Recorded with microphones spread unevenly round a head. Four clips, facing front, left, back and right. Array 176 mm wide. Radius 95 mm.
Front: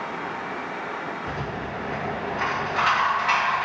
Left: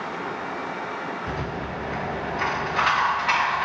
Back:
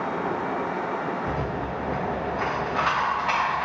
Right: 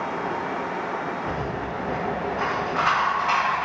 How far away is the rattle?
About 0.9 m.